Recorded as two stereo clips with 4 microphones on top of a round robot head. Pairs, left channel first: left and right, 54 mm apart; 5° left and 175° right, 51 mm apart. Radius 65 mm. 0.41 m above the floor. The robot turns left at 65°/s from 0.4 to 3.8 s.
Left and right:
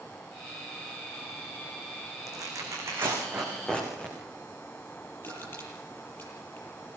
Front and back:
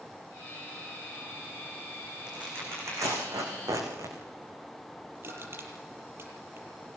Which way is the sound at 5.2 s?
145° left.